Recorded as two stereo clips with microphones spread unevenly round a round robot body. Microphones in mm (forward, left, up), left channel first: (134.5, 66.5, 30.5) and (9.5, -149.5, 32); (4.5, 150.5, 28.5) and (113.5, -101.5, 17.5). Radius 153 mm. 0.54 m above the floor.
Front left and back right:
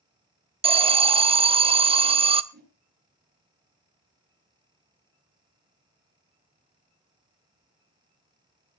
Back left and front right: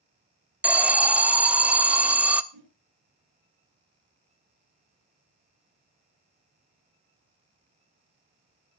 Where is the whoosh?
70° right, 7 m.